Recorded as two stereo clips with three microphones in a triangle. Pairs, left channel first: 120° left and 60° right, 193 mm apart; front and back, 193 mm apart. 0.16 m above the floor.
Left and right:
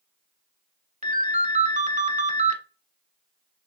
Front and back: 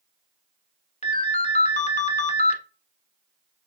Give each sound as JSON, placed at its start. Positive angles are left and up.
{"t": 1.0, "sound": "a ringtone", "azimuth_deg": -30, "distance_m": 0.7}